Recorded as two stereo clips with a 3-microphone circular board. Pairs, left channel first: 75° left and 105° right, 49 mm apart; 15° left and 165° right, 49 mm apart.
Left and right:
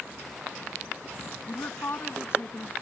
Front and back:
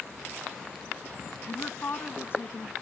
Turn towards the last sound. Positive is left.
turn(degrees=50)